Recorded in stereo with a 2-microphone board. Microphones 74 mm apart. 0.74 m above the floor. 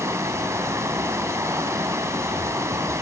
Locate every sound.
0.0 s running water: 40° right (ahead or behind), 2.5 m